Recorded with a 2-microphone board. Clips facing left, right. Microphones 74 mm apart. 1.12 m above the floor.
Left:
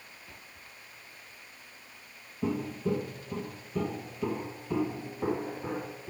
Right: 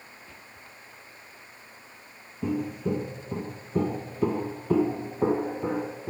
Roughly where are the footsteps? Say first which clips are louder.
Right 2 dB; centre.